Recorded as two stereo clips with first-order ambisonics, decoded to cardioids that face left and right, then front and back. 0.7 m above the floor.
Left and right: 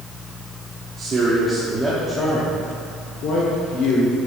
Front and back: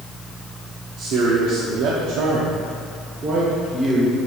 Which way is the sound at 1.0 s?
150° right.